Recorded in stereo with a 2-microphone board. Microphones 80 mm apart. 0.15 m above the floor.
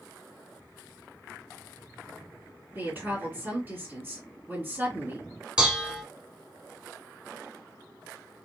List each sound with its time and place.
2.8 s a woman speaking: 25° right (ahead or behind), 2 m
5.6 s dishes clattering: 15° right (ahead or behind), 0.8 m